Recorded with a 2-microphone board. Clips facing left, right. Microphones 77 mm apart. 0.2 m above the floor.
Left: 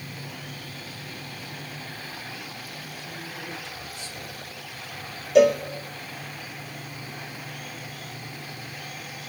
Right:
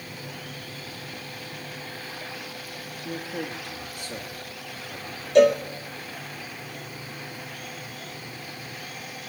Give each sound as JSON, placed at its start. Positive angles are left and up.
{"t": 3.0, "sound": "a man speaking", "side_deg": -50, "distance_m": 7.0}
{"t": 5.3, "sound": "a cowbell", "side_deg": 5, "distance_m": 2.0}